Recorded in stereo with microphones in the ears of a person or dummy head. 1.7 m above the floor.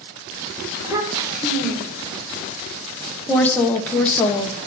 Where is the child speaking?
20° right (ahead or behind), 1.3 m.